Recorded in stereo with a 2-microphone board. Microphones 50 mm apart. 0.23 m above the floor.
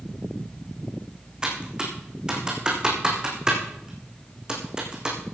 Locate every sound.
1.4 s typing on a keyboard: 15° right (ahead or behind), 4 m